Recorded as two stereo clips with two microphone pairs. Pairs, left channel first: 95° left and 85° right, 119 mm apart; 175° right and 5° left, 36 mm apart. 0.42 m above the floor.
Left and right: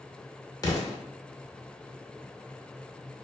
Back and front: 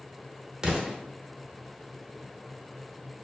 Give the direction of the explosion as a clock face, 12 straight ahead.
10 o'clock.